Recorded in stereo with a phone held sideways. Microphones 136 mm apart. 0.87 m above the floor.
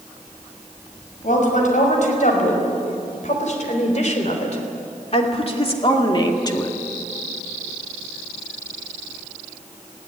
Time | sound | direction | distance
1.2 | a woman speaking | 70° left (ahead or behind) | 6 m